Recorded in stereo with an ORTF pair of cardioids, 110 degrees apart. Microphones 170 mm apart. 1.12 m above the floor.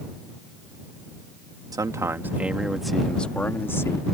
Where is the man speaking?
20° right; by 4.0 s 15° left.